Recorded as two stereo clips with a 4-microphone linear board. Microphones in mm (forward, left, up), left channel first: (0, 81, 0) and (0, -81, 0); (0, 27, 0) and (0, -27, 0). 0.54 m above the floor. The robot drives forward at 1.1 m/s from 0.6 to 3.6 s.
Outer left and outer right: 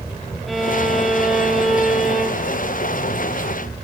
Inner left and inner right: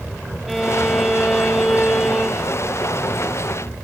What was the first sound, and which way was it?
A violin, centre (ahead or behind).